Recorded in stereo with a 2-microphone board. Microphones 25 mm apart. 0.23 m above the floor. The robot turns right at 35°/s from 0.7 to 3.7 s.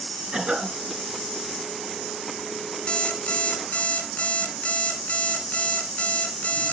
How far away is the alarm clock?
About 1.9 m.